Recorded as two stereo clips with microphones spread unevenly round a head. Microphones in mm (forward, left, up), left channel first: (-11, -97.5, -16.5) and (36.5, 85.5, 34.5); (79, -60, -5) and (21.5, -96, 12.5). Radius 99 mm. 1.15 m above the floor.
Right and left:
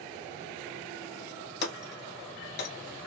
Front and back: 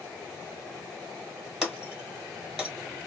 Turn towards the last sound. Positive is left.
turn(degrees=-90)